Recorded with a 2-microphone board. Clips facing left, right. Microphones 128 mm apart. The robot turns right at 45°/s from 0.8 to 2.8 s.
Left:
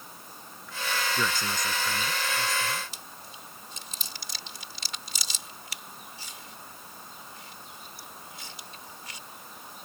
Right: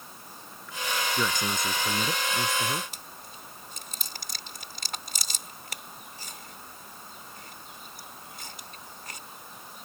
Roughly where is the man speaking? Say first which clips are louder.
Right 1 dB; behind.